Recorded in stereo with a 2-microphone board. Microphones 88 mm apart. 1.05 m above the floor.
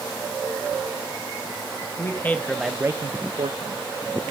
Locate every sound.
2.0 s a man speaking: 30° left (ahead or behind), 1.4 m; by 4.3 s 75° right (ahead or behind), 1.9 m